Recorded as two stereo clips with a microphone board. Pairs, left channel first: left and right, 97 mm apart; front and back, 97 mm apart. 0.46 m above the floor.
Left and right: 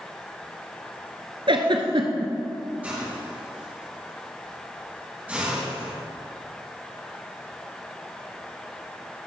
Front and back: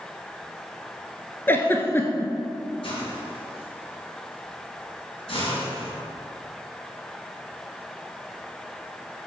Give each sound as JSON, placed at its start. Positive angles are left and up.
{"t": 1.5, "sound": "a giggle", "azimuth_deg": -65, "distance_m": 1.0}
{"t": 2.8, "sound": "a hiss", "azimuth_deg": -15, "distance_m": 2.5}